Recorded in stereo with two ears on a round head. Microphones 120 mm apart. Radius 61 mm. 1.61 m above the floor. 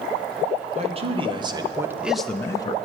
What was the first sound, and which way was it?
A man speaking, 50° right (ahead or behind).